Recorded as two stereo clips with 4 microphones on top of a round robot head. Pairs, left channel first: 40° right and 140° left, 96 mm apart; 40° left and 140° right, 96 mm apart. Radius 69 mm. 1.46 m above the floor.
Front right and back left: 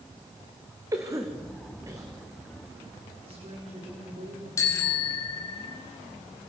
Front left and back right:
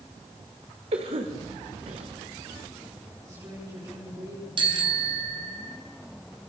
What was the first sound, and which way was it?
A cough, 160° right.